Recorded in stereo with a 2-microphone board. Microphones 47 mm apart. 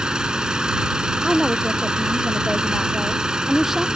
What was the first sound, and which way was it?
An engine running, 20° right (ahead or behind).